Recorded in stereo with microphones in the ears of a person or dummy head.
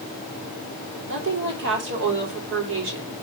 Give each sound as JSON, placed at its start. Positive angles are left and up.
{"t": 1.1, "sound": "a woman speaking", "side_deg": -60, "distance_m": 3.0}